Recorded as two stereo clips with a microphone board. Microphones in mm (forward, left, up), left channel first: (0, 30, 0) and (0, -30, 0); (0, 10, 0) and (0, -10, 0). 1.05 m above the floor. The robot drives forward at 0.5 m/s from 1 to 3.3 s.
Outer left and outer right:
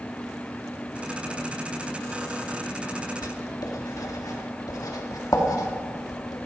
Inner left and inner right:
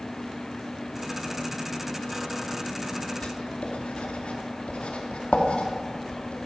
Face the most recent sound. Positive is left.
turn(degrees=80)